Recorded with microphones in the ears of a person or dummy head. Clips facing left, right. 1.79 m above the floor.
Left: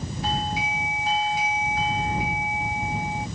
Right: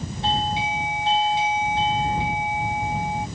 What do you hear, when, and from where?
0.2 s a doorbell: 30° right (ahead or behind)